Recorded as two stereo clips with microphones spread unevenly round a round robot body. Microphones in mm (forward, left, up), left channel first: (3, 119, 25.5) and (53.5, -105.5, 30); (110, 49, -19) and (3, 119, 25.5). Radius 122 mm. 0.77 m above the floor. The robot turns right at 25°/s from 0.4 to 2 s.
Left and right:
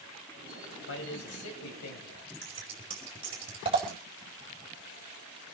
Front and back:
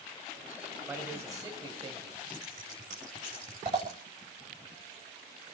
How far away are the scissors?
About 4.5 m.